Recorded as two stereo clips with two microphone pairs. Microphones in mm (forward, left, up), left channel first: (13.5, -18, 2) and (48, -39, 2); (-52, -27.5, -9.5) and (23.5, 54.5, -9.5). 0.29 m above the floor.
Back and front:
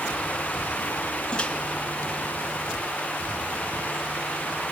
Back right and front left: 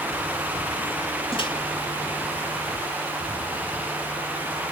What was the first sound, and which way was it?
A microwave, 145° right.